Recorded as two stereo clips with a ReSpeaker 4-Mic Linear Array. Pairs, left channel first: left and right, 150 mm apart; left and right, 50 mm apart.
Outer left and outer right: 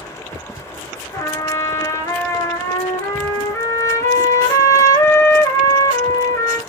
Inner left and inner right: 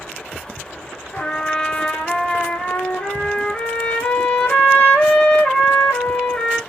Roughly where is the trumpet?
Centre.